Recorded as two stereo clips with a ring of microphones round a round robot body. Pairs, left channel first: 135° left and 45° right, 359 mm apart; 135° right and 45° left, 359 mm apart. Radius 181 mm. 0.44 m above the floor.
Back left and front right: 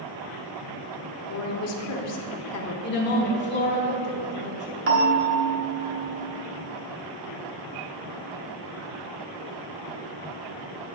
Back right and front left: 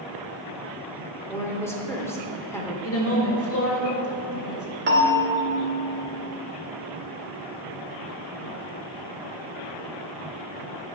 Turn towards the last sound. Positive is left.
turn(degrees=-5)